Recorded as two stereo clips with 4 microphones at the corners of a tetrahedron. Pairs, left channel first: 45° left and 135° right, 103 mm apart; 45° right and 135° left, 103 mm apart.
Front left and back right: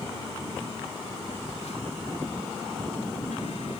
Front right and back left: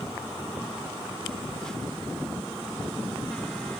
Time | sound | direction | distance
1.3 | a phone buzzing | 40° left | ?